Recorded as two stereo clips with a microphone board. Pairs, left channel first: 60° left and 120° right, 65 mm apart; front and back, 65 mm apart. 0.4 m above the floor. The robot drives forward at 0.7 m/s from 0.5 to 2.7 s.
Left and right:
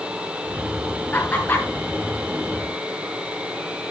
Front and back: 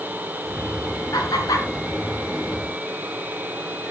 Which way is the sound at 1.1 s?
Straight ahead.